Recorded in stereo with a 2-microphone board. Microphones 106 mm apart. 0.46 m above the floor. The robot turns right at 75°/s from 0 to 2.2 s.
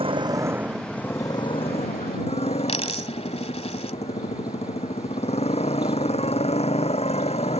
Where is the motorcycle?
60° right; by 7.6 s 105° left.